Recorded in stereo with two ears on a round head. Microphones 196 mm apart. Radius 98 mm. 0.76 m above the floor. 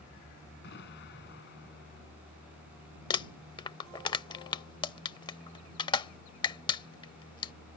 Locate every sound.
0.6 s an explosion: 50° left (ahead or behind)
3.1 s crumpling: 20° left (ahead or behind)